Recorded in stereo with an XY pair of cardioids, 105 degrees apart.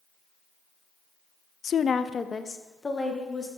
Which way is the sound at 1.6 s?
55° left.